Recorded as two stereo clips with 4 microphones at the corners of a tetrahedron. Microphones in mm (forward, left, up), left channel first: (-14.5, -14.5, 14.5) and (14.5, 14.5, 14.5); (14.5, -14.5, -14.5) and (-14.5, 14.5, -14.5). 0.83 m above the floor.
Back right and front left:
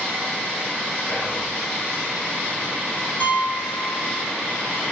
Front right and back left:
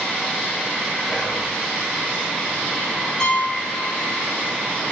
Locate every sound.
1.1 s whispering: 140° right, 1.0 m
3.2 s a piano: 115° right, 0.7 m